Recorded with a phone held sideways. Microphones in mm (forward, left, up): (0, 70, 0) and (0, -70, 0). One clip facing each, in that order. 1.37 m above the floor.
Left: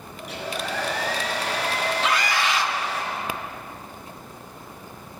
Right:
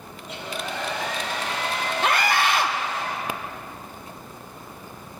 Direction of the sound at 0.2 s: 80° left.